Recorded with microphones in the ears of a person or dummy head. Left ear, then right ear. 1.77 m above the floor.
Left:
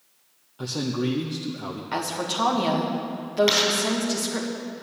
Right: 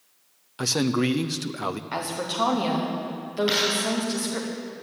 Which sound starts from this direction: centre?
A woman speaking, at 1.9 s.